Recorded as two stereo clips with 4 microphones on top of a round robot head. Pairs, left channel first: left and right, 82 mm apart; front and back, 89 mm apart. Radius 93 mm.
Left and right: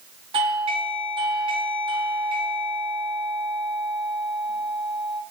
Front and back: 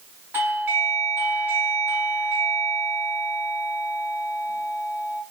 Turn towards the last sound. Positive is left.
turn(degrees=-110)